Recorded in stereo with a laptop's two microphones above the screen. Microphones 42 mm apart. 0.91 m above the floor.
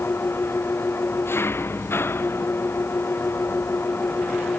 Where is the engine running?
65° left (ahead or behind).